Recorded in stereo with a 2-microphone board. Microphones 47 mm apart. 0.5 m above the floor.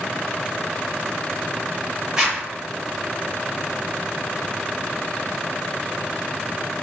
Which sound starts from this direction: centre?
A zipper, at 2.2 s.